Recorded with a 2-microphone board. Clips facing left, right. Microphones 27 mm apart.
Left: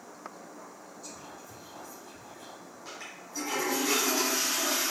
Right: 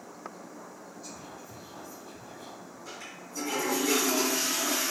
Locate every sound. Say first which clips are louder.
1.0 s whispering: even; 15° right (ahead or behind), 1.8 m
2.9 s a toilet flushing: left 1 dB; 40° left (ahead or behind), 1.6 m